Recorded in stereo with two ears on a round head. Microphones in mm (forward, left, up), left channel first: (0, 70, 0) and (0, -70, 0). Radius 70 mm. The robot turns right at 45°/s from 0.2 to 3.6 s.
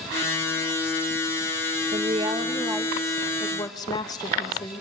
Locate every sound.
1.9 s a woman speaking: 50° right, 2.5 m; by 4.8 s 25° left, 2.5 m